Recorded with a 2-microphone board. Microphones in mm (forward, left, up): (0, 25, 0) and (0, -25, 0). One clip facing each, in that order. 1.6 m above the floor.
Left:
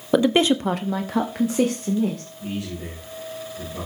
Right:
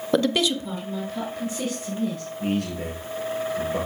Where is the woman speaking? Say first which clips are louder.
Left 4 dB; 5° left (ahead or behind), 0.9 m; by 2.2 s 65° left (ahead or behind), 2.5 m.